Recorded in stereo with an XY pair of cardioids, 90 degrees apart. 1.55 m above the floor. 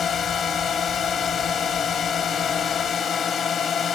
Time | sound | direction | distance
0.0 | a drone | 60° left | ?